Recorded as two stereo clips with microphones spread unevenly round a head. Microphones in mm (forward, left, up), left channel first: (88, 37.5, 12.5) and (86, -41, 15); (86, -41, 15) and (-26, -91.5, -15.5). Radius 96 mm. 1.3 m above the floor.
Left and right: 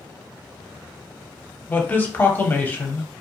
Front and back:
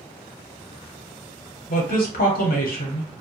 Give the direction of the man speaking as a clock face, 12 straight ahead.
11 o'clock.